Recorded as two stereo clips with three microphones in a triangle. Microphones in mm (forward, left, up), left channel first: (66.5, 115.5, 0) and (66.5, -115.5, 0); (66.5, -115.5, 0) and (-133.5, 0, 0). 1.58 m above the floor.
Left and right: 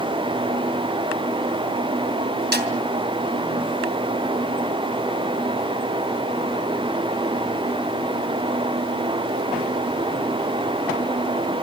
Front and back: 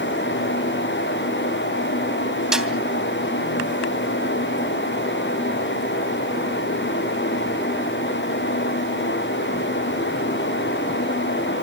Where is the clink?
No clink in this recording.